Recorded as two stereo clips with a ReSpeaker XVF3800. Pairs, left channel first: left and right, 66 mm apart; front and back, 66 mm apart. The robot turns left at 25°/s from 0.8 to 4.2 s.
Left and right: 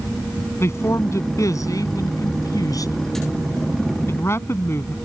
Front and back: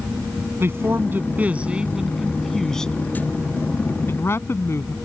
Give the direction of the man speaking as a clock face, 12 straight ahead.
8 o'clock.